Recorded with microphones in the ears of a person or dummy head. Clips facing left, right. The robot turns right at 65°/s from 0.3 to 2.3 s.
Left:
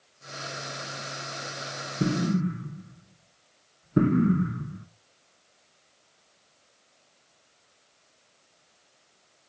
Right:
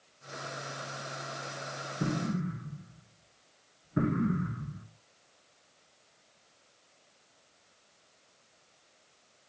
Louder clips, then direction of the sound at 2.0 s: Left 7 dB; 35° left (ahead or behind).